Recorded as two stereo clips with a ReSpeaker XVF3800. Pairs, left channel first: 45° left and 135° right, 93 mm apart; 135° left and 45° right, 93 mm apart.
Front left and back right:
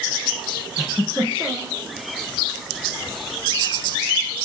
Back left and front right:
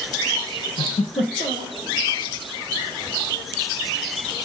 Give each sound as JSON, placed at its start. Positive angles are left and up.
{"t": 0.8, "sound": "a giggle", "azimuth_deg": 135, "distance_m": 6.0}